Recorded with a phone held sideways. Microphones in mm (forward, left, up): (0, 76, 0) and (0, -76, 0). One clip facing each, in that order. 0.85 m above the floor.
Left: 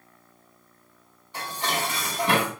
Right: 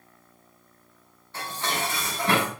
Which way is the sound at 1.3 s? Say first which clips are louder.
Left 1 dB; 15° left (ahead or behind).